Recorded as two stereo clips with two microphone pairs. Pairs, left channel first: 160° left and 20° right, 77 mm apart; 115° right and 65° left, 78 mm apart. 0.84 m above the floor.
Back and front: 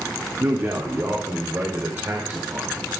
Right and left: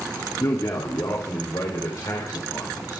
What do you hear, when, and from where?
0.4 s a man speaking: 70° right, 2 m; by 3.0 s 75° right, 3.5 m